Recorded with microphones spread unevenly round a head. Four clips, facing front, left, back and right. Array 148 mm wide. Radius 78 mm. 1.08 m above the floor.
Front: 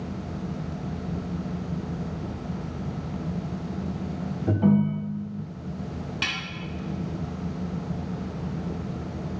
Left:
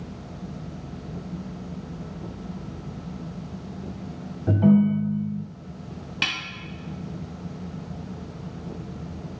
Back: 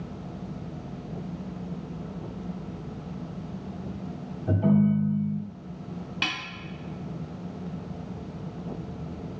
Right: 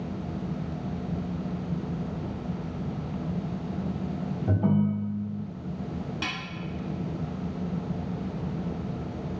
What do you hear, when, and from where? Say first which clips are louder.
4.5 s a ringtone: left 7 dB, even; 60° left, 0.9 m
6.2 s a snare drum: left 6 dB, back 2 dB; 110° left, 0.8 m